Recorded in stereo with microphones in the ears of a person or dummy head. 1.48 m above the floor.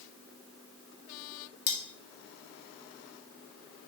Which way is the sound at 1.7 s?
50° left (ahead or behind).